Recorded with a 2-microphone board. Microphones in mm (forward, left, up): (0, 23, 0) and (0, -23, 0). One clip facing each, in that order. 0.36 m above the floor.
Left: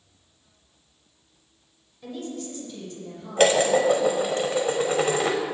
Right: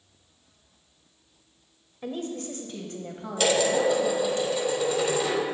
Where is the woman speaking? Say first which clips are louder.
Right 2 dB; 40° right (ahead or behind), 1.3 m; by 4.4 s 60° right (ahead or behind), 2.5 m.